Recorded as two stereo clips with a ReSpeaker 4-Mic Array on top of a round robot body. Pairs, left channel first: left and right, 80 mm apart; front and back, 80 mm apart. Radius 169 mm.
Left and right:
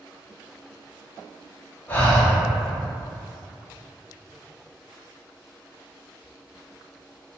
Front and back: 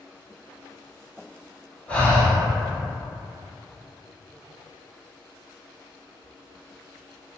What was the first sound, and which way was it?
Breathing, 55° left.